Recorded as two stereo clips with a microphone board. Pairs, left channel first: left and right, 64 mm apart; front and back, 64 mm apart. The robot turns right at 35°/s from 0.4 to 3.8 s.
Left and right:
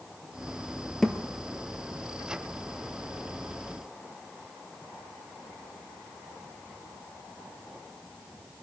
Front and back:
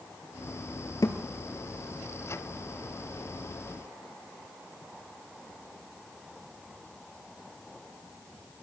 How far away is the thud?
About 1.4 m.